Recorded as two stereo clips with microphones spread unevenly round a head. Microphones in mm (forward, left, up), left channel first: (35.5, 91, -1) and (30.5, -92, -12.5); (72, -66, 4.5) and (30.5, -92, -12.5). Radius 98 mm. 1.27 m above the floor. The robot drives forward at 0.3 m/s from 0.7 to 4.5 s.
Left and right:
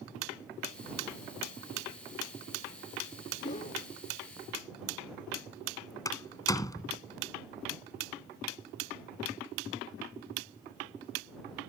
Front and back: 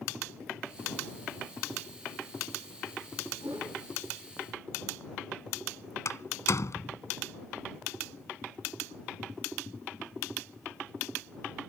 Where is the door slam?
15° left.